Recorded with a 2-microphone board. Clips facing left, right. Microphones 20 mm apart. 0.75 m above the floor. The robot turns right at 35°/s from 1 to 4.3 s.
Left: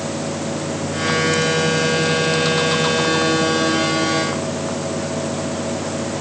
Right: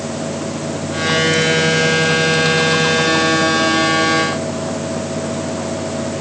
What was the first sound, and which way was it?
Only background noise.